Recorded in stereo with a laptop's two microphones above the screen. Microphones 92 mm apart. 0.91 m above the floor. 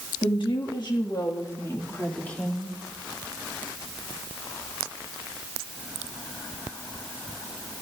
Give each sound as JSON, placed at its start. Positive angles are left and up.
{"t": 0.2, "sound": "a woman speaking", "side_deg": 65, "distance_m": 2.0}